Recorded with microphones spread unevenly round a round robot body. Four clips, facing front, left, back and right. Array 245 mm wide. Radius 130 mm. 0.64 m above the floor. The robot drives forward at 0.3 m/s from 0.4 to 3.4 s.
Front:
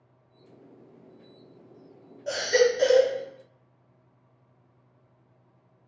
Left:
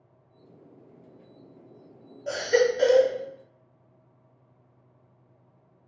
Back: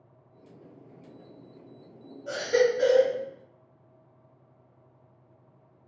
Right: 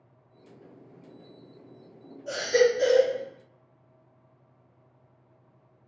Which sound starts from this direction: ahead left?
A baby crying, at 2.3 s.